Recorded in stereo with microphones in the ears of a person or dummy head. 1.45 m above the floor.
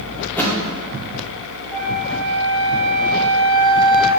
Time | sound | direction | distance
0.2 | a thud | 10° left (ahead or behind) | 1.6 m
1.7 | a flute | 20° left (ahead or behind) | 2.5 m